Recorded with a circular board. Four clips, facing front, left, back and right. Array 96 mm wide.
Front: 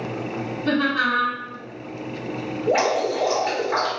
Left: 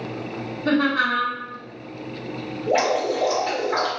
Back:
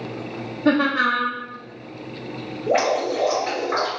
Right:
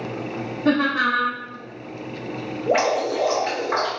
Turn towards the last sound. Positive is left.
turn(degrees=-115)